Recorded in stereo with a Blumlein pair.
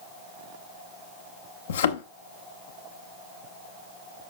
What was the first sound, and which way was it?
A thud, 65° left.